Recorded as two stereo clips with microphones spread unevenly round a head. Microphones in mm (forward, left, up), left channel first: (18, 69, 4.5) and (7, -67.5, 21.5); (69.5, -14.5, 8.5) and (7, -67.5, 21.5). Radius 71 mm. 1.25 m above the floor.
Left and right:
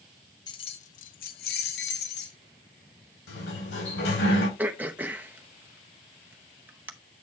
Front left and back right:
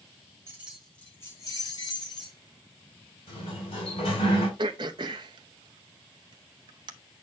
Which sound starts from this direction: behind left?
Keys jangling, at 0.5 s.